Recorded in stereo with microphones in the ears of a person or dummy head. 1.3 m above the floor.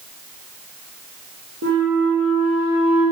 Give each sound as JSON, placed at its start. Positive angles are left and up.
{"t": 1.6, "sound": "a flute", "side_deg": -70, "distance_m": 1.4}